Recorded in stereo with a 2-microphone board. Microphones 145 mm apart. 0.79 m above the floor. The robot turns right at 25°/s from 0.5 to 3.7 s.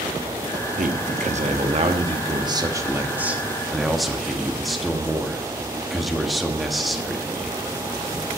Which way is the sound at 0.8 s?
75° right.